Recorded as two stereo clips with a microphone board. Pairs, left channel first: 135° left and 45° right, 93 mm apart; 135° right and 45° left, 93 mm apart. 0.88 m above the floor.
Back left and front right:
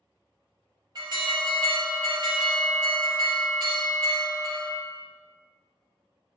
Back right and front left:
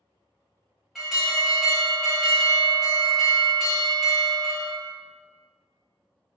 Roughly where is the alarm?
Ahead right.